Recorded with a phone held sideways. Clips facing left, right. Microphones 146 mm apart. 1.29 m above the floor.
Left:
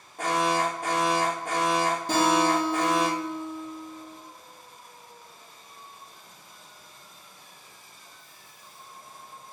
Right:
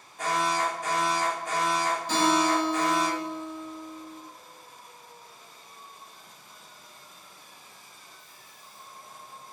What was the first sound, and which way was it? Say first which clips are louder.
An alarm: left 2 dB; 60° left (ahead or behind).